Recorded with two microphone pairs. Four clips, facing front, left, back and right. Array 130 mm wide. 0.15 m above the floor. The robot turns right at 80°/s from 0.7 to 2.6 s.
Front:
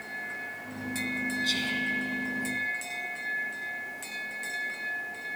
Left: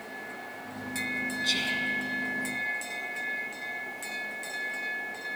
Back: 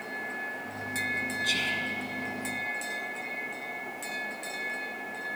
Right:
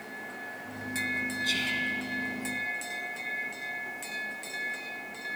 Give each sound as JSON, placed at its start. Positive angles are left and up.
{"t": 1.4, "sound": "whispering", "azimuth_deg": 160, "distance_m": 1.0}